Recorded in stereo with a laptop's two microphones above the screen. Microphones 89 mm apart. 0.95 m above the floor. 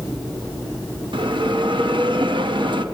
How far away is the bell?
About 1.0 m.